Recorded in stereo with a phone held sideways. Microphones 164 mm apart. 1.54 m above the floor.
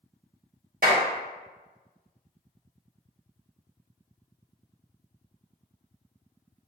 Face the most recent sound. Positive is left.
turn(degrees=-60)  # may be behind; listen again after turning